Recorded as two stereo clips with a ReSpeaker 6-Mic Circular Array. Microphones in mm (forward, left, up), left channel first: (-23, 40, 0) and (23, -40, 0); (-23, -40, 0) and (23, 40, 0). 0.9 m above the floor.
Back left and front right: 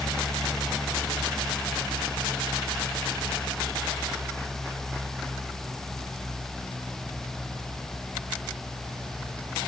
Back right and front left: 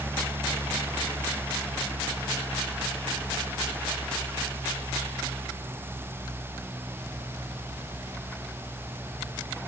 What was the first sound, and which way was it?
Only background noise.